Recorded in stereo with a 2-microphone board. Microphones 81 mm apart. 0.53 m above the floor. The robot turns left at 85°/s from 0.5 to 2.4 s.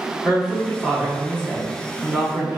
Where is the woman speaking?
10° left (ahead or behind), 0.8 m; by 2.6 s 20° right (ahead or behind), 0.8 m.